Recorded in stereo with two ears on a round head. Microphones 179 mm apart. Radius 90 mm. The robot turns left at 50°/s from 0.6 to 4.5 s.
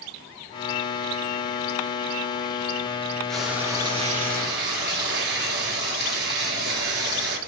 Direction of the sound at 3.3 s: 5° left.